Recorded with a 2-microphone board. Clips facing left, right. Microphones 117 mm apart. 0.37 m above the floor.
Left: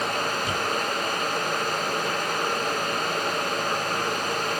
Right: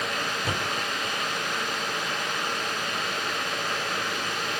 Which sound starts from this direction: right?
A thud, at 0.4 s.